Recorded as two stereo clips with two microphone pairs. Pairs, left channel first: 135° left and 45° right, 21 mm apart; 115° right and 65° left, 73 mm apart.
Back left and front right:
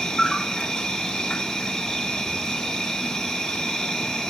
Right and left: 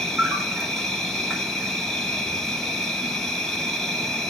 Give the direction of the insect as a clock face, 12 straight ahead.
7 o'clock.